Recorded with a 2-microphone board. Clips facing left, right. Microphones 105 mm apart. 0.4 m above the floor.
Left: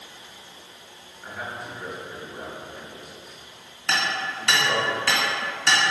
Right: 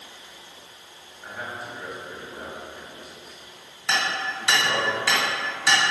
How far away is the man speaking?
About 0.8 m.